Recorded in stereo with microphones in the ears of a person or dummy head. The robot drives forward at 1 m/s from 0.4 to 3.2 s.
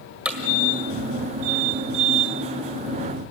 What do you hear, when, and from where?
0.2 s hammering: 10° right (ahead or behind), 1.8 m